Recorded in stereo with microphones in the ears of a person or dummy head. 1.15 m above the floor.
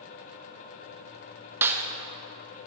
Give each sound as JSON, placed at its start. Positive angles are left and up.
{"t": 1.6, "sound": "a snare drum", "side_deg": -15, "distance_m": 1.1}